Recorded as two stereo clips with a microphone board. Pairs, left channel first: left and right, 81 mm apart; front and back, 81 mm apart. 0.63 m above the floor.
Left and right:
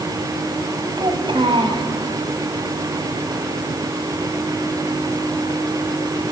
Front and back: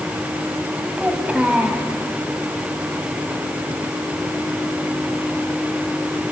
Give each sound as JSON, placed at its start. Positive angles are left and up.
{"t": 1.0, "sound": "a child speaking", "azimuth_deg": -105, "distance_m": 3.5}